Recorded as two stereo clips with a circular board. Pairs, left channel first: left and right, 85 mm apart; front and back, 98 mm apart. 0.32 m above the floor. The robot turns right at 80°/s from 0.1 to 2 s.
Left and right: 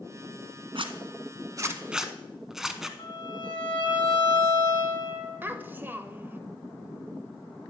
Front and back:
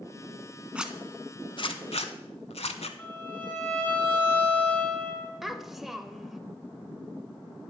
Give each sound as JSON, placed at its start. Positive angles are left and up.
{"t": 0.8, "sound": "a zipper", "azimuth_deg": -105, "distance_m": 0.6}
{"t": 3.0, "sound": "a violin", "azimuth_deg": 65, "distance_m": 3.0}
{"t": 5.4, "sound": "a child speaking", "azimuth_deg": -95, "distance_m": 0.5}